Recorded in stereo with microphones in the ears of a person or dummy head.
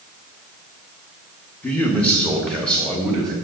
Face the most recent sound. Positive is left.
turn(degrees=5)  # may be behind; listen again after turning